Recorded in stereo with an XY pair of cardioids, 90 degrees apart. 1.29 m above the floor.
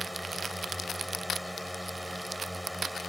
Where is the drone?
5° right.